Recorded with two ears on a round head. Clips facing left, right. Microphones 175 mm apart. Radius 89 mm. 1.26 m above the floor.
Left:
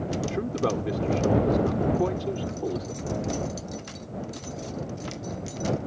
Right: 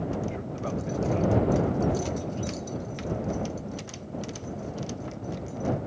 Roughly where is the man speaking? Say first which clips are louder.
Left 6 dB; left.